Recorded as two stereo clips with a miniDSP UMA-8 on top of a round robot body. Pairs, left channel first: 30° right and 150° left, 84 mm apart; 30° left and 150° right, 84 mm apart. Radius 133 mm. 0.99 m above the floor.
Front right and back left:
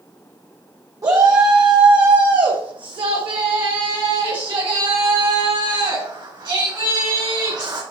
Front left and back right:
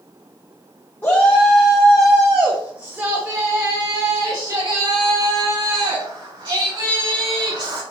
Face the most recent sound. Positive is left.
turn(degrees=-170)